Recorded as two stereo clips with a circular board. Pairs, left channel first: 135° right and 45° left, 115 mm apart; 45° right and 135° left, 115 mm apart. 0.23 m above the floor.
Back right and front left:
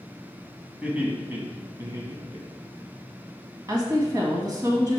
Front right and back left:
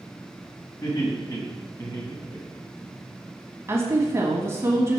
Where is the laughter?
30° right, 2 m; by 2.9 s 15° left, 2.5 m.